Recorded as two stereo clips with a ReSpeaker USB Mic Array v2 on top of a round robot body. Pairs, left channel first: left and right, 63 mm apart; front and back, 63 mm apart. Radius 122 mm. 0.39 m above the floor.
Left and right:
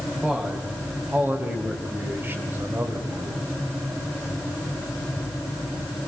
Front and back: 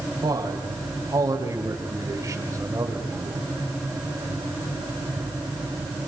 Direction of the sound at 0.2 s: 170° right.